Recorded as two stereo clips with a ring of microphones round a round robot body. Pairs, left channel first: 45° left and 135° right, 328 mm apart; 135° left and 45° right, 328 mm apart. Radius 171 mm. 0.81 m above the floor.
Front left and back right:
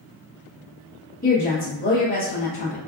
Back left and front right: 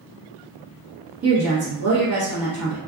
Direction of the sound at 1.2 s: 15° right.